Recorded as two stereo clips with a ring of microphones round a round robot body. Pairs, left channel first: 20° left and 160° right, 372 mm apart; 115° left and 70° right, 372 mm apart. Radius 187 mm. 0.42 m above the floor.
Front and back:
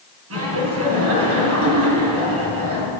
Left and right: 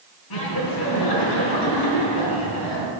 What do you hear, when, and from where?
0.3 s laughter: 145° left, 4 m